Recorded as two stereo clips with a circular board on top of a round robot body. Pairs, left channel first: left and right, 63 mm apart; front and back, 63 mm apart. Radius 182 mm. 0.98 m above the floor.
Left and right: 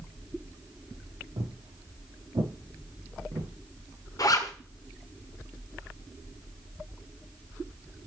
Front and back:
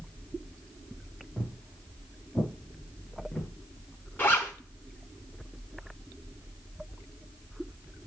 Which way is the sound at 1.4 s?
80° right.